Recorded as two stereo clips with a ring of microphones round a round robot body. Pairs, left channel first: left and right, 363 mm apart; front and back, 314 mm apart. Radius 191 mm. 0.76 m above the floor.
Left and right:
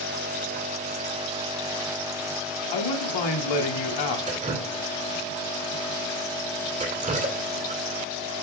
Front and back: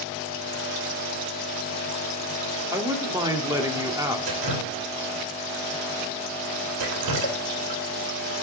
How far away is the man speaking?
About 2 m.